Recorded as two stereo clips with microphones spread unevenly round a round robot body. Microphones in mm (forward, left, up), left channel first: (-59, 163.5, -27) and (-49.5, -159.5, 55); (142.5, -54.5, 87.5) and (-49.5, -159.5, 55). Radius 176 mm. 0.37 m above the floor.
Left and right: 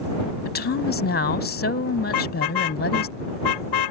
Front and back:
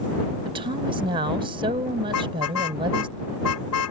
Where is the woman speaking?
145° left.